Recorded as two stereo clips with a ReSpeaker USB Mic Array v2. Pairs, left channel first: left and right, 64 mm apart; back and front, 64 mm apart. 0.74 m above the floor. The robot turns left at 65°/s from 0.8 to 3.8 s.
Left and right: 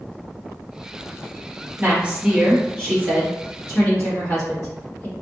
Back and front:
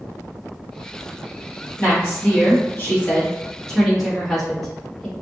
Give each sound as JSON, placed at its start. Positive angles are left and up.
{"t": 1.8, "sound": "a woman speaking", "azimuth_deg": -135, "distance_m": 1.3}